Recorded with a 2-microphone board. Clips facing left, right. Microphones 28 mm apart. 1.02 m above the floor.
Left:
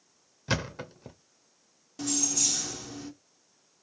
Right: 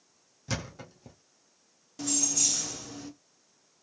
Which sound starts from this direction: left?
A thud, at 0.5 s.